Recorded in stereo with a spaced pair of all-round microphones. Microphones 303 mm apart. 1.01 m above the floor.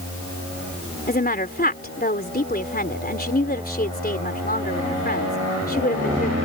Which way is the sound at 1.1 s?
30° left (ahead or behind).